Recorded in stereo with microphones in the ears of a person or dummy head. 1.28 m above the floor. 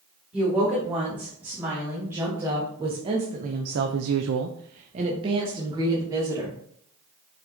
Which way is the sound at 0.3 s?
5° right (ahead or behind).